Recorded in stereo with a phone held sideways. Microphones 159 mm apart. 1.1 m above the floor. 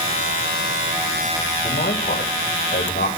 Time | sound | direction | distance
1.6 | a man speaking | 85° left | 4 m